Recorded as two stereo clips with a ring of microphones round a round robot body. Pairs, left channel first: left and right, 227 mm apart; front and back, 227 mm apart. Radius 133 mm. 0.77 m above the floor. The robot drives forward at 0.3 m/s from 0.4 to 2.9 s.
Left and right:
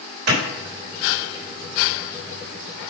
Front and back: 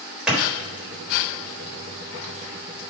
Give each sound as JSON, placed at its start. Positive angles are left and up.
{"t": 0.3, "sound": "a clap", "azimuth_deg": -95, "distance_m": 3.5}